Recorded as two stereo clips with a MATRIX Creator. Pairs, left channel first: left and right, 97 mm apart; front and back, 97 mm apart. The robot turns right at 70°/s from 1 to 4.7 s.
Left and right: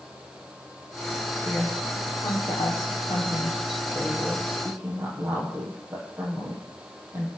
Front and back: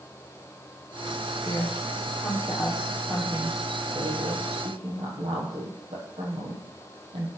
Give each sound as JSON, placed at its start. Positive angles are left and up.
{"t": 1.4, "sound": "a woman speaking", "azimuth_deg": -25, "distance_m": 9.0}